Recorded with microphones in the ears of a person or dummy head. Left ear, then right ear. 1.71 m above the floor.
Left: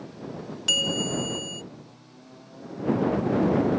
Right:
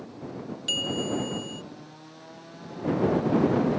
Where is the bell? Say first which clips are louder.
Left 4 dB; 35° left (ahead or behind).